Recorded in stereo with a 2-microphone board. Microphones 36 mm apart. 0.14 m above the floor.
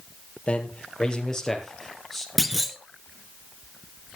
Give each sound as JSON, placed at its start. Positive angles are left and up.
{"t": 0.5, "sound": "a man speaking", "side_deg": 30, "distance_m": 3.0}
{"t": 2.4, "sound": "a clunk", "side_deg": 0, "distance_m": 0.9}